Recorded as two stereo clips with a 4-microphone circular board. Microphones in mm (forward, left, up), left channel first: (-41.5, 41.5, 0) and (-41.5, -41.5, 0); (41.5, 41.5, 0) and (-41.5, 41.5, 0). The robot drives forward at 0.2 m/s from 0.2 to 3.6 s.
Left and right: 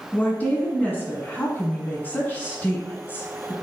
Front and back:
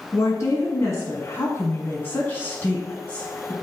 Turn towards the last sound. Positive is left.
turn(degrees=65)